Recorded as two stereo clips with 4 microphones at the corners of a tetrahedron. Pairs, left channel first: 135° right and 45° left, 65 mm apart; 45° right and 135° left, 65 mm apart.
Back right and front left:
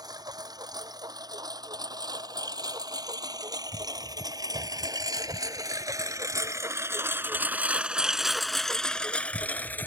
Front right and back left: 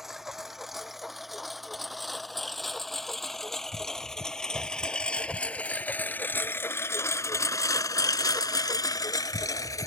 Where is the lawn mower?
50° left; by 9.9 s 75° right.